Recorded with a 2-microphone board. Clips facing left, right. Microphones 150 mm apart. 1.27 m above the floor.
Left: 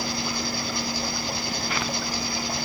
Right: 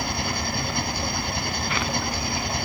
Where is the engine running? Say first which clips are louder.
Right 1 dB; 60° right (ahead or behind).